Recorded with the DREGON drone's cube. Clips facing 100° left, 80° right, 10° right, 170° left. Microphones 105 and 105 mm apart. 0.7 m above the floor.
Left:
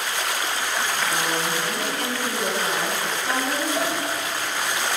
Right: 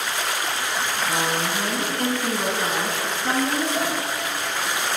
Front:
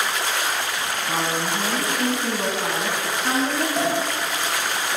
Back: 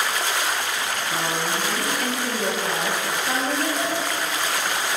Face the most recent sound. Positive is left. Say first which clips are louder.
# even, front 3 dB
turn(degrees=10)